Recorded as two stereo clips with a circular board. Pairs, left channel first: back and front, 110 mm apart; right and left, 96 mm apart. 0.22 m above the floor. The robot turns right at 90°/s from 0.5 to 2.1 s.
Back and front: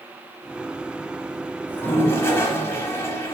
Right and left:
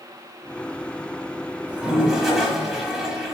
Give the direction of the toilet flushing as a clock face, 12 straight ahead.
8 o'clock.